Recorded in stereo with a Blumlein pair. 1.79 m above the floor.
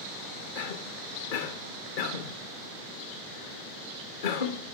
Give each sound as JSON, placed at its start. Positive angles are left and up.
{"t": 0.6, "sound": "a cough", "azimuth_deg": 55, "distance_m": 1.6}